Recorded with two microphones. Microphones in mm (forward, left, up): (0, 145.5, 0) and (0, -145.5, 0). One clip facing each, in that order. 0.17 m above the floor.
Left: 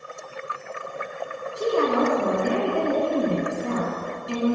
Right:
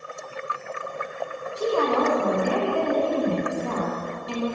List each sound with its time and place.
1.6 s a woman speaking: 20° left (ahead or behind), 1.6 m